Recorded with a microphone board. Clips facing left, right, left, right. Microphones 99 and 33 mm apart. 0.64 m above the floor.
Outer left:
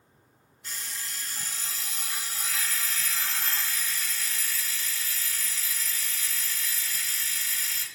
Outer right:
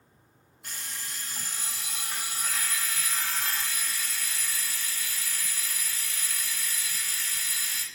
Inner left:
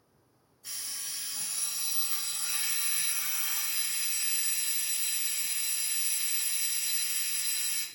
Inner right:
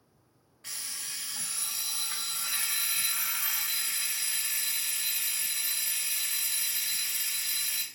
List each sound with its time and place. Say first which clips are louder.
0.6 s an alarm clock: outer left 1 dB, inner right 1 dB; 55° right (ahead or behind), 0.5 m